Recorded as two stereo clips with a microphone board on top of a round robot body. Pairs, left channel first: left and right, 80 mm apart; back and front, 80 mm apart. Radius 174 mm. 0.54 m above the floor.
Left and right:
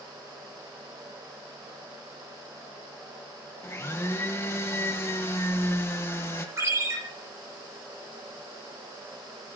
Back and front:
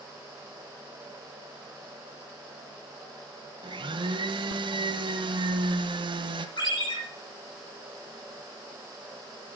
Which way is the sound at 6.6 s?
145° right.